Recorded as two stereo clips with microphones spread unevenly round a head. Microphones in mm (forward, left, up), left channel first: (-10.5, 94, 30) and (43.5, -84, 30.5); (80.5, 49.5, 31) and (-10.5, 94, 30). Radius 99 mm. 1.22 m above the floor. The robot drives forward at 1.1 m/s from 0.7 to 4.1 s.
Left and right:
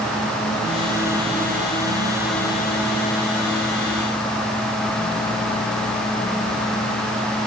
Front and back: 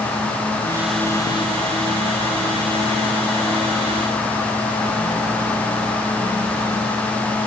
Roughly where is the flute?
I don't hear a flute.